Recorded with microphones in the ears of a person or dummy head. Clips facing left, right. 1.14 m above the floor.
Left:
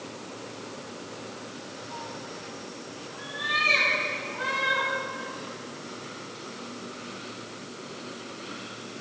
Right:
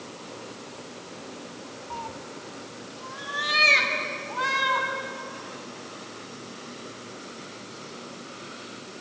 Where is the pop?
I don't hear a pop.